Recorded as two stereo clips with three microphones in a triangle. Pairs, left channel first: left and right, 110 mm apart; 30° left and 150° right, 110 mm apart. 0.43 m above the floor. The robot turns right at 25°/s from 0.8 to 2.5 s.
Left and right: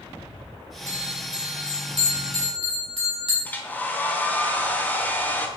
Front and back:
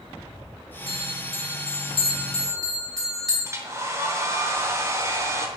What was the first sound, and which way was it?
A bell, 145° right.